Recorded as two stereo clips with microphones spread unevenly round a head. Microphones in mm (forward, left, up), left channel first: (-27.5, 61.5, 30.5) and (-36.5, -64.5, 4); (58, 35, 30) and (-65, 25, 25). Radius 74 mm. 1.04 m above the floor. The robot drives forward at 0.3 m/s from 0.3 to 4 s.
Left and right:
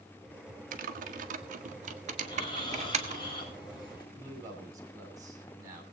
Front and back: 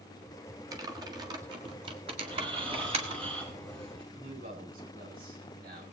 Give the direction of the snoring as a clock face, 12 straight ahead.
7 o'clock.